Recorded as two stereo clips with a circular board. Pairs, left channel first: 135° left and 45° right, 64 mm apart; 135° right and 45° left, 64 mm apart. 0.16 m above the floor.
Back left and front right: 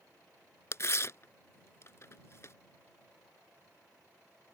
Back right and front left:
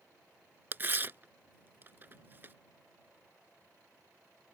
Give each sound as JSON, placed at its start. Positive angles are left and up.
{"t": 0.7, "sound": "tearing paper", "azimuth_deg": 100}